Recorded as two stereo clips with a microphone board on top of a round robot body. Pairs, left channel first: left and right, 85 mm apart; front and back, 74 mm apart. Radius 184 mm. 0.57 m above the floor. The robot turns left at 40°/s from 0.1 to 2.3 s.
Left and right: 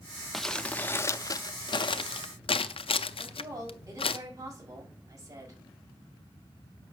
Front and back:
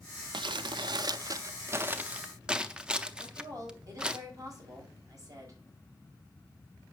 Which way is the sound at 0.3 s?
Straight behind.